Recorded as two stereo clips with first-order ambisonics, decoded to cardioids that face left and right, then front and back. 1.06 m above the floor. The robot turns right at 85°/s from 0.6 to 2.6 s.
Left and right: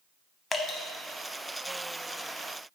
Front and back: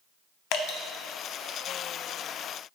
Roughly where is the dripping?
Ahead.